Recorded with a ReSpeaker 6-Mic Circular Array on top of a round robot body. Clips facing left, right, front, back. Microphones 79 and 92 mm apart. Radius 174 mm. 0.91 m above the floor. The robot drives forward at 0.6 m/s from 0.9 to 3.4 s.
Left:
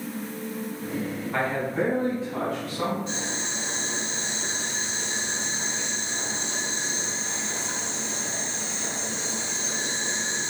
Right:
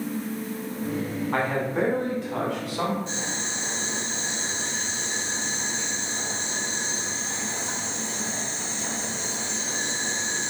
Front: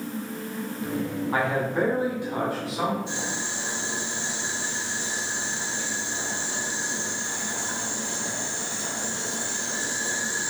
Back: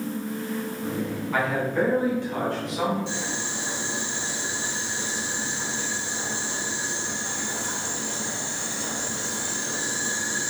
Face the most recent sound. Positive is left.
turn(degrees=-160)